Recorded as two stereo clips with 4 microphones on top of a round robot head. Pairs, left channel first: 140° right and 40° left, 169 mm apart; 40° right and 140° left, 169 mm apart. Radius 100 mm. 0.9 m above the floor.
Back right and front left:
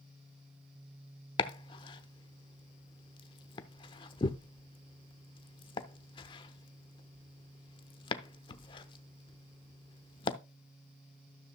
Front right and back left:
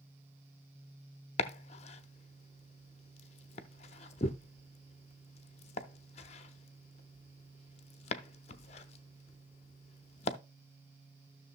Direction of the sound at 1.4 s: 85° right.